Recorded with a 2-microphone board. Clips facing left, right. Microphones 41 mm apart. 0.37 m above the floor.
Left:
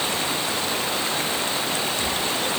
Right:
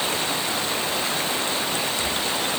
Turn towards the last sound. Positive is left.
No sound to turn to.